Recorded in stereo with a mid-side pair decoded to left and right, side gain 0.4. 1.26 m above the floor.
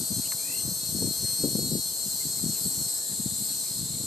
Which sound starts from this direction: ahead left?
An insect, at 0.0 s.